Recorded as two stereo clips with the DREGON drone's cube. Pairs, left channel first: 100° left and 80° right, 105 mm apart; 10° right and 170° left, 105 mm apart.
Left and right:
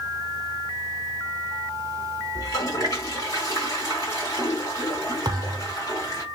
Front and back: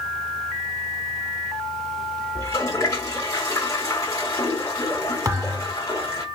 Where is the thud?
130° right, 0.6 m.